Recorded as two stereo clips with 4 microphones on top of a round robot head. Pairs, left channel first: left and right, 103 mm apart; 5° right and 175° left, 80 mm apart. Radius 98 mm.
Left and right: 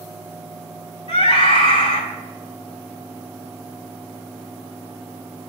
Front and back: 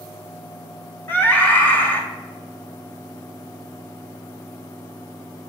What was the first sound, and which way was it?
A scream, 60° left.